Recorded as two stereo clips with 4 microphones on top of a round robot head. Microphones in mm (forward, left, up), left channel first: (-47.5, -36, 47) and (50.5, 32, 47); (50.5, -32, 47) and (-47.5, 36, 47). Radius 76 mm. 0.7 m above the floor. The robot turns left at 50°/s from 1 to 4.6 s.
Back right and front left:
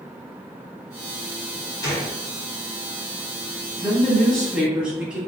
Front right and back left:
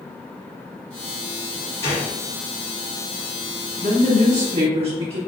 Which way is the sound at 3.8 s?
160° left.